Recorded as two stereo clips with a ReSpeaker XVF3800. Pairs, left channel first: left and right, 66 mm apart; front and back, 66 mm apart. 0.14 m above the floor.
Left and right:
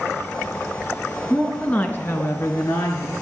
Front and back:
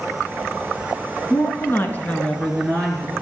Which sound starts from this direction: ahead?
A woman speaking, at 1.3 s.